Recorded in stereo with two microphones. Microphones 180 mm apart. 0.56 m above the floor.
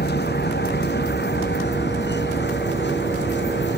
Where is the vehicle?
65° left (ahead or behind); by 3.8 s 75° left (ahead or behind).